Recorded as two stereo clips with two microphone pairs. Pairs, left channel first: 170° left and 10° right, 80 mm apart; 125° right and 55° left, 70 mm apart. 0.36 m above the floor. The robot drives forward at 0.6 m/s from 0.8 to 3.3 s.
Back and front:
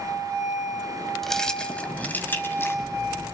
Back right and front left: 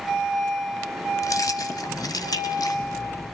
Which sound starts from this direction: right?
Keys jangling, at 1.2 s.